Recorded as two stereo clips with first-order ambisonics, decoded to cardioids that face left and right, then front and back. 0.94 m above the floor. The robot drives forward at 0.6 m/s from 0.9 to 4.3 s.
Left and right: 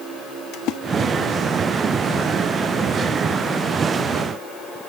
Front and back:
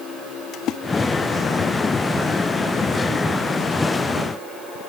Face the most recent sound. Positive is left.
turn(degrees=150)